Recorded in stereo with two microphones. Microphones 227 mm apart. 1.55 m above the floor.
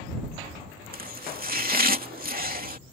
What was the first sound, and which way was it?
Chopping, 40° right (ahead or behind).